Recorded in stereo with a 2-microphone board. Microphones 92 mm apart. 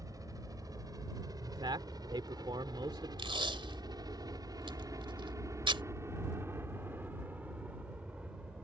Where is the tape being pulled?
75° right (ahead or behind).